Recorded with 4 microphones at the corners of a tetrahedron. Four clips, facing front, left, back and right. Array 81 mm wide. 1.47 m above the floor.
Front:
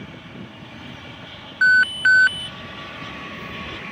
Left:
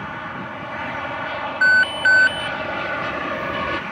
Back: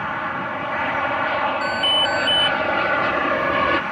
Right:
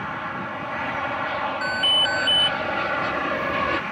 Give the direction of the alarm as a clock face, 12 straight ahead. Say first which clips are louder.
Left 11 dB, front 6 dB; 11 o'clock.